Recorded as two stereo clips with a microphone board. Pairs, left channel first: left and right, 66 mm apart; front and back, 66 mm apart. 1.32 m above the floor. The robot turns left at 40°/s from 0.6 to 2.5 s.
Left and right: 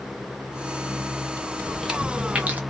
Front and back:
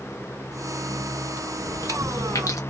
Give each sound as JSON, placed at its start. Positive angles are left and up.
{"t": 1.6, "sound": "chewing", "azimuth_deg": 10, "distance_m": 0.8}